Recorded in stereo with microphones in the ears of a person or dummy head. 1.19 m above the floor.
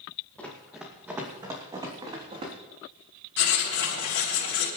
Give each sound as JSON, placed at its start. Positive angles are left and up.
{"t": 0.4, "sound": "running footsteps", "side_deg": 5, "distance_m": 2.5}
{"t": 3.4, "sound": "writing", "side_deg": 65, "distance_m": 3.5}